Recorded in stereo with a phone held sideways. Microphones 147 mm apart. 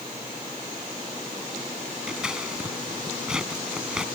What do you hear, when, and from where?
2.1 s scissors: 5° right (ahead or behind)